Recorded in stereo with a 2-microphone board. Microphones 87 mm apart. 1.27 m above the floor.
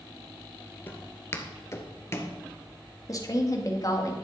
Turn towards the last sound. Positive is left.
turn(degrees=45)  # may be behind; listen again after turning